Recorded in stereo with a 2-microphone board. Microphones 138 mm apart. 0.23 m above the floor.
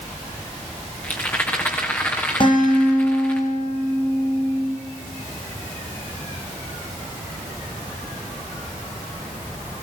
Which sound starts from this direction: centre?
A rattle, at 1.0 s.